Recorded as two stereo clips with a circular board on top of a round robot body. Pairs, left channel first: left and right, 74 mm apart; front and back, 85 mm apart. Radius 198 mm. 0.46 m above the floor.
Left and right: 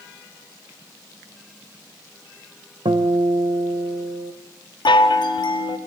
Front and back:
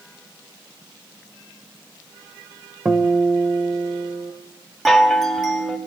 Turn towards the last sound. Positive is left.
turn(degrees=90)